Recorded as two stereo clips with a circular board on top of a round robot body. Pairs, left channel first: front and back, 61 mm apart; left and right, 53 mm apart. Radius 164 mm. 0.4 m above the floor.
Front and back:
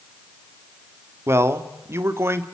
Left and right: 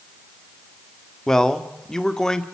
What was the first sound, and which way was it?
A man speaking, 165° left.